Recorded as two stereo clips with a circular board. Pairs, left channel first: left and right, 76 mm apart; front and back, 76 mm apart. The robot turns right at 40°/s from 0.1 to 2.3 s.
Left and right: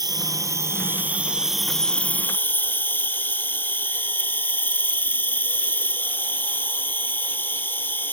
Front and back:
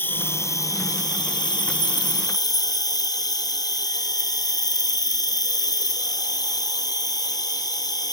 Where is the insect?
60° right, 0.7 m; by 8.1 s 25° left, 0.7 m.